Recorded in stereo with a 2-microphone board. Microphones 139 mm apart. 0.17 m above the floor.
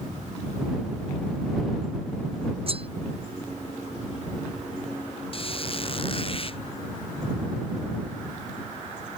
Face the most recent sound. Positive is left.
turn(degrees=40)  # may be behind; listen again after turning